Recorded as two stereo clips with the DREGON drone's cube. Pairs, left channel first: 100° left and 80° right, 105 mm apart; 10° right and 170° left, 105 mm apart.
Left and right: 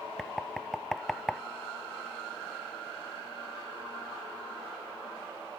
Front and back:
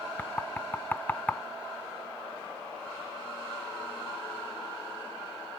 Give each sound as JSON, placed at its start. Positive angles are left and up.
{"t": 0.2, "sound": "knocking", "azimuth_deg": 20}